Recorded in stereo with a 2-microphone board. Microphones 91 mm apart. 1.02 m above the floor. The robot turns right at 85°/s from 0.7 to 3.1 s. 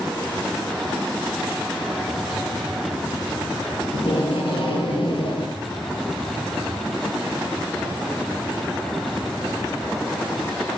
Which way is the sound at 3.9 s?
65° left (ahead or behind).